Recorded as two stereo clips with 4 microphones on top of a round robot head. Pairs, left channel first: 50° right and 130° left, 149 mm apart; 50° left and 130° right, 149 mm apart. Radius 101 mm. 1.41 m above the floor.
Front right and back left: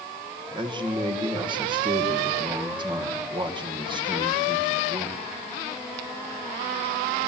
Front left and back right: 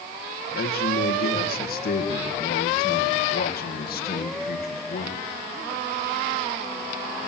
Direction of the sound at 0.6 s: 70° left.